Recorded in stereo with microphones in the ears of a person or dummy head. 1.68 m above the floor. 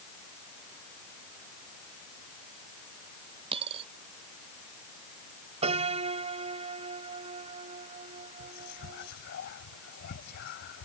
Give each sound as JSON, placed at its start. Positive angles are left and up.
{"t": 3.5, "sound": "a dropped coin", "side_deg": -30}
{"t": 5.6, "sound": "a piano", "side_deg": -40}
{"t": 8.4, "sound": "whispering", "side_deg": 50}